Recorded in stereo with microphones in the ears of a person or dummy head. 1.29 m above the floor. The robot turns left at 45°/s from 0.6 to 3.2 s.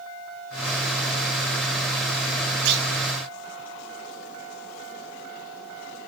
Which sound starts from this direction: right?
A clunk, at 2.6 s.